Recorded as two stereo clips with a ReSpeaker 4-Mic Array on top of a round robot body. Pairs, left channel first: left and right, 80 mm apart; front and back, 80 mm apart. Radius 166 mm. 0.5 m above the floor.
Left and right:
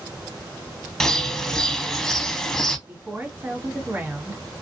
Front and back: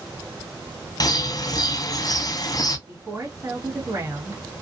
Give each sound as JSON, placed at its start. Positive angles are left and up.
{"t": 1.0, "sound": "a bird", "azimuth_deg": 10, "distance_m": 0.8}
{"t": 2.9, "sound": "a woman speaking", "azimuth_deg": -145, "distance_m": 1.5}